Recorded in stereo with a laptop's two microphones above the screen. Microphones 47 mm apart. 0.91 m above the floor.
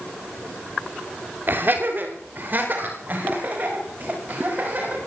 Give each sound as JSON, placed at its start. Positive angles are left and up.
{"t": 1.5, "sound": "laughter", "side_deg": -45, "distance_m": 2.5}